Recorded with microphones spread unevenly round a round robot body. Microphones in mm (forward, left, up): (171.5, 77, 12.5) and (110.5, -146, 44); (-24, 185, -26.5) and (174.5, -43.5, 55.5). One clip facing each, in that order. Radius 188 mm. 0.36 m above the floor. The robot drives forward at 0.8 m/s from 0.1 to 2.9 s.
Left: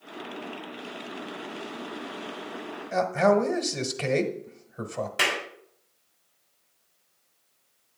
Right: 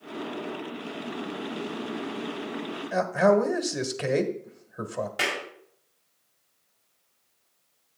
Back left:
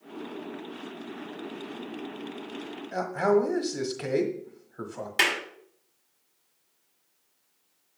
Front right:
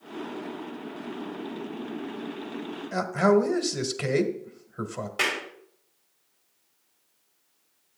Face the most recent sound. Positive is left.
turn(degrees=170)